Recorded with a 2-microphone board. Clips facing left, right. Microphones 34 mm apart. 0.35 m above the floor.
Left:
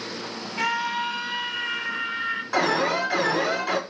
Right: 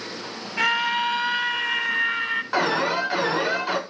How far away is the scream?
About 1.4 m.